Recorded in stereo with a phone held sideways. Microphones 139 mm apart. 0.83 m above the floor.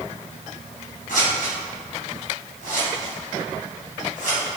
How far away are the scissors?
About 2.5 m.